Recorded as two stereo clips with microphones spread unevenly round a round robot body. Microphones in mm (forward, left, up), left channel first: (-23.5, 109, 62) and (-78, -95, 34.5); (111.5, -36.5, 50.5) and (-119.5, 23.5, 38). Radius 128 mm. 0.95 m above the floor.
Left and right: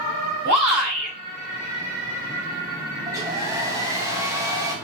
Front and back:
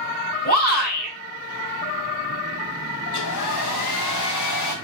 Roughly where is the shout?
Ahead right.